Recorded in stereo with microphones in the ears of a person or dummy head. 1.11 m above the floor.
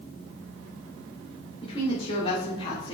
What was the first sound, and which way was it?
A woman speaking, 35° left (ahead or behind).